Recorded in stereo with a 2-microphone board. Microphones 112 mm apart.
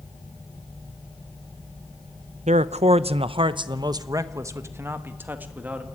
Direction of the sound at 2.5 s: 85° right.